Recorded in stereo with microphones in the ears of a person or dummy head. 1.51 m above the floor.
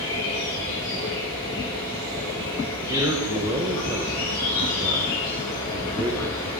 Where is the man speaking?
20° right (ahead or behind), 1.1 m.